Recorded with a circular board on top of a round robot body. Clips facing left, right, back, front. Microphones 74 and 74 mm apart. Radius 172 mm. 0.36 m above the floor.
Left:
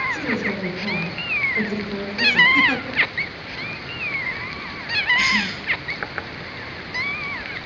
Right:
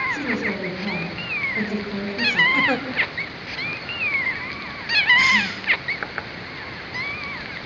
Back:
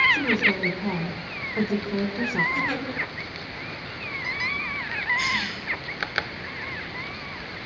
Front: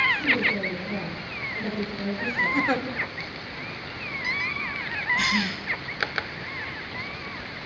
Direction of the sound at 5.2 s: 30° right.